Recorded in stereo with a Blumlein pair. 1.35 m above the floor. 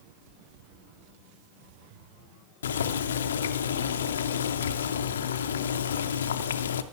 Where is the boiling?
65° left, 0.6 m.